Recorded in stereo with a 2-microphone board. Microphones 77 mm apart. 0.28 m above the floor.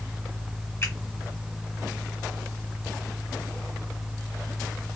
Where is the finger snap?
35° left (ahead or behind), 1.4 m.